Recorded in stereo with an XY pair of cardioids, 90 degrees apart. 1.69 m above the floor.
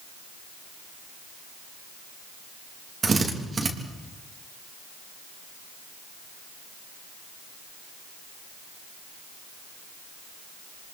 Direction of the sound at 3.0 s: 40° right.